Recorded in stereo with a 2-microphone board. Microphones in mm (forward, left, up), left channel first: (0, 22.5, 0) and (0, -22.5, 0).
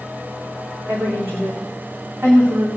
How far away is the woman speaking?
About 8.5 m.